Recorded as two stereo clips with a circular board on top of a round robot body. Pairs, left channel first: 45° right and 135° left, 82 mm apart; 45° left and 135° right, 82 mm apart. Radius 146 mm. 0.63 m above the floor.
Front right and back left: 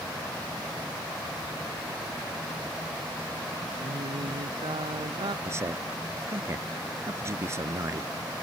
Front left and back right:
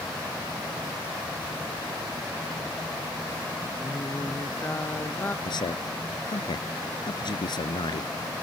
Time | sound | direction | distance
3.8 | singing | 115° left | ?
5.5 | a man speaking | 80° left | ?